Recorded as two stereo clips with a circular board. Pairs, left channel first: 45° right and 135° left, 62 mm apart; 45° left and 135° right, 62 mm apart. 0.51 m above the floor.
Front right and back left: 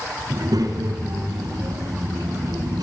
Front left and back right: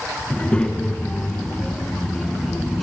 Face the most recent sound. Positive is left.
turn(degrees=135)